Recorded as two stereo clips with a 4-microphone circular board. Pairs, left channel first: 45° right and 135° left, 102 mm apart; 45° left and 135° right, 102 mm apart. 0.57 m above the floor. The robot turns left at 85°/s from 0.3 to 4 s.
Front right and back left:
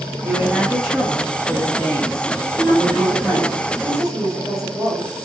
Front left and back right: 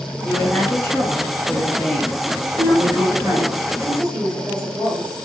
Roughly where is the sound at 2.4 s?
Ahead right.